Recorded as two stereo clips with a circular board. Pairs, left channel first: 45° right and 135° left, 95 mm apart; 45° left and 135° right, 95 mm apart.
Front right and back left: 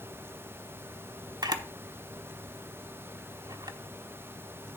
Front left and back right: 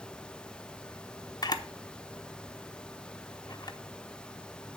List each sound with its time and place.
1.4 s a camera shutter: 90° left, 0.9 m